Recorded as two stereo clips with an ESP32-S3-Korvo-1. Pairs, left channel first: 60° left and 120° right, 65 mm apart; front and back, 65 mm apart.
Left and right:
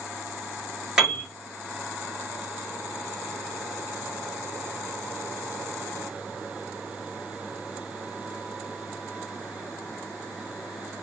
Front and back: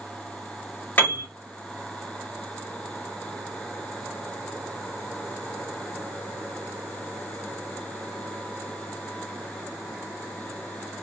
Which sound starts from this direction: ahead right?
A piano, at 1.0 s.